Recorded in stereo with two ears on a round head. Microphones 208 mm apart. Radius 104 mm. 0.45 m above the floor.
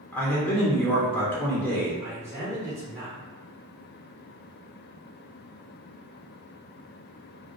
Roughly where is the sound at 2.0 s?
Centre.